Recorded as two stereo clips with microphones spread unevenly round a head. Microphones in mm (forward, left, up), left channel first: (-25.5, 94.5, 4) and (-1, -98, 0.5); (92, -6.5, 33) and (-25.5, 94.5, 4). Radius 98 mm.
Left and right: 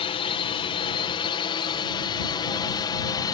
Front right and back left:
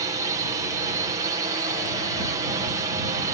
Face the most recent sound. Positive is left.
turn(degrees=150)